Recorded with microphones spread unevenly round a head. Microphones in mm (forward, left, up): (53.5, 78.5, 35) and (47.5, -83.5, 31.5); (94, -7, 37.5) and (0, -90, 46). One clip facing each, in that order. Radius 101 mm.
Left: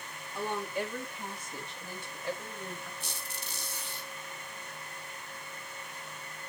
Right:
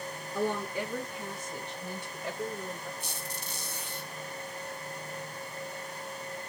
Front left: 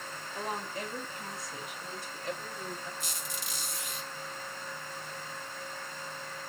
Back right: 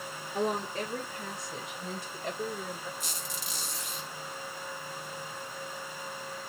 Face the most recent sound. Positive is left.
turn(degrees=-150)